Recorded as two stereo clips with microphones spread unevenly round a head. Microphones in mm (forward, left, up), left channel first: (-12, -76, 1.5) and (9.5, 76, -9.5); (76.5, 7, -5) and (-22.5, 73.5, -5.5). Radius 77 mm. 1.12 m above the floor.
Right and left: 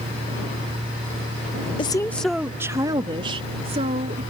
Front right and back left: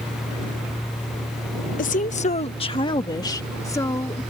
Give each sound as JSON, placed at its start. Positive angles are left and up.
{"t": 1.8, "sound": "a woman speaking", "azimuth_deg": -40}